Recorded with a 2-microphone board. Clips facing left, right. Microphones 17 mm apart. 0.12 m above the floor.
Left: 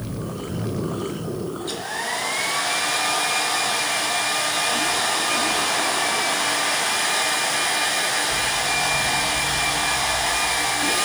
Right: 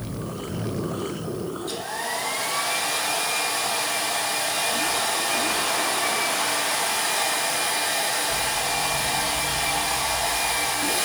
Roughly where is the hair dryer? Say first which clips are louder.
Left 2 dB; left.